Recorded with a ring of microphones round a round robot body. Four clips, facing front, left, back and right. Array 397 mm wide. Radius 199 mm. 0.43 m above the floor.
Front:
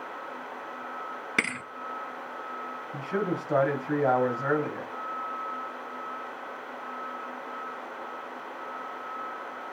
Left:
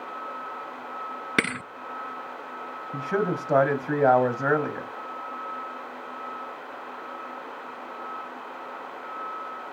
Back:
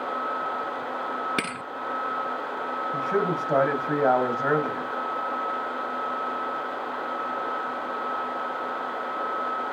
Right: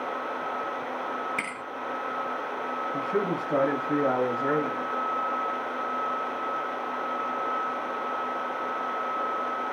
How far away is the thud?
About 0.9 m.